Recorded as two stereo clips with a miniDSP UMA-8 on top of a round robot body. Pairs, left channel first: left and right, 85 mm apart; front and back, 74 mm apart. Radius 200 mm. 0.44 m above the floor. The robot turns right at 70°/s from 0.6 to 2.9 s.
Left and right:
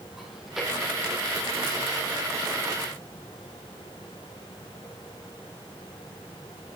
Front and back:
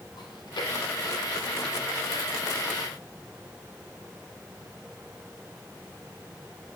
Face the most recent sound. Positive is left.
turn(degrees=160)